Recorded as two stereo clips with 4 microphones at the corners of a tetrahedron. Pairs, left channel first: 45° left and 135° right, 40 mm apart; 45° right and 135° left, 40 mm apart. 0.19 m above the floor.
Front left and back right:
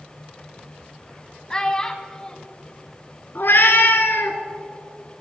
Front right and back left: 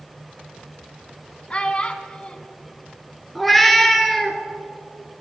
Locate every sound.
1.5 s a child speaking: 10° right, 0.9 m
3.4 s a cat meowing: 40° left, 1.0 m